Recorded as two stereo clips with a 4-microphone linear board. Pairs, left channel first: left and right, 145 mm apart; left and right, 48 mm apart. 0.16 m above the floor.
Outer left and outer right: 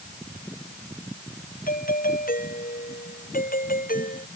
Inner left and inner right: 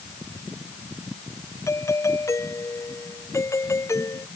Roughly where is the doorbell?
Left.